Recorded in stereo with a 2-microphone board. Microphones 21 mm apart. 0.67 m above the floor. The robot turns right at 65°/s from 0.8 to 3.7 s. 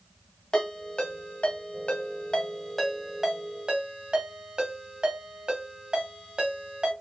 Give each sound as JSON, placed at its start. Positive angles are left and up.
{"t": 0.5, "sound": "a ringtone", "side_deg": 40, "distance_m": 2.0}